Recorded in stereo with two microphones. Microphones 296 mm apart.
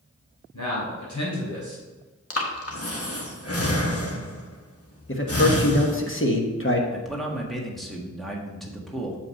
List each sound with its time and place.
0.5 s a man speaking: 75° left (ahead or behind), 3 m
2.3 s breathing: 50° left (ahead or behind), 1.2 m
5.1 s a man speaking: 45° left (ahead or behind), 1.2 m
6.9 s a man speaking: centre (ahead or behind), 1.5 m